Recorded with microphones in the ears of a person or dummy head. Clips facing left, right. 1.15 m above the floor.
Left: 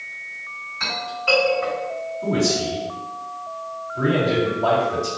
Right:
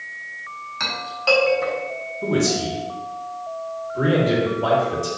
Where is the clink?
60° right (ahead or behind), 1.3 m.